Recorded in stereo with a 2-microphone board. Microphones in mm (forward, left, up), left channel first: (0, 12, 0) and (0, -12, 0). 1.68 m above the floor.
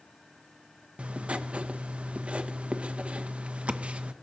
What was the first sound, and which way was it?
Writing, 55° right (ahead or behind).